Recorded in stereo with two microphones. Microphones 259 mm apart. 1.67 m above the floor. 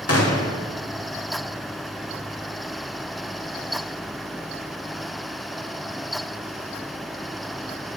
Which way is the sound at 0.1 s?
65° left (ahead or behind).